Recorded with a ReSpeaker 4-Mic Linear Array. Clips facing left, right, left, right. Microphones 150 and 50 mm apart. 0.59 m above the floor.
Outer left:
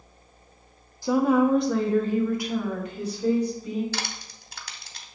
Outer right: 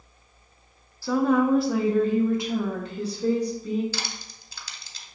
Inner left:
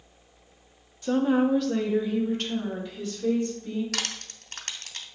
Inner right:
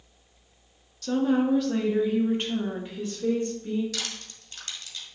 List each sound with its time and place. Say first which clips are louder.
1.0 s a woman speaking: outer left 1 dB, inner left 1 dB; 20° left (ahead or behind), 0.6 m; by 3.8 s 35° right (ahead or behind), 1.5 m
3.9 s crushing: outer left 2 dB, inner left 3 dB; 60° left (ahead or behind), 0.8 m